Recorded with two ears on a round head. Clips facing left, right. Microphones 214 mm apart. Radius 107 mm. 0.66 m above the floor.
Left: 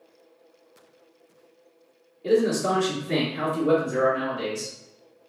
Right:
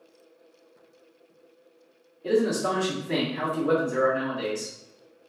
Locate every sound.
2.2 s a man speaking: centre (ahead or behind), 1.3 m